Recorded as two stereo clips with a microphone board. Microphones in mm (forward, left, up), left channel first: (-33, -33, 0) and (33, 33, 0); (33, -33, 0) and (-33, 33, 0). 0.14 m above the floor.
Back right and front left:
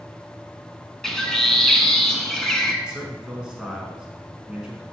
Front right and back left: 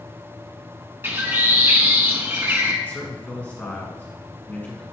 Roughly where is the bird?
Behind left.